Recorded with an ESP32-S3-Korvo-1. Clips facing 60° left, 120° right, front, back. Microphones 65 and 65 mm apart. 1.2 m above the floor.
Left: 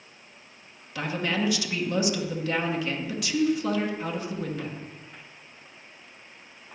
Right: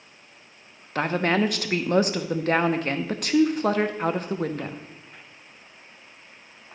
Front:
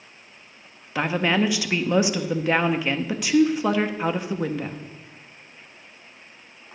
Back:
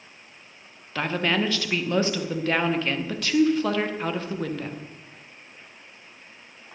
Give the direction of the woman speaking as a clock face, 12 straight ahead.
3 o'clock.